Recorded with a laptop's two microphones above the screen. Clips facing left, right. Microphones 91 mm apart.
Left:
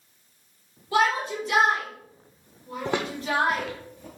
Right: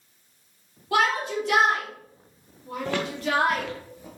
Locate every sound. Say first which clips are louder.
0.9 s a shout: even; 75° right (ahead or behind), 3 m
2.9 s footsteps: even; 20° left (ahead or behind), 1.1 m; by 4.1 s 10° right (ahead or behind), 1.4 m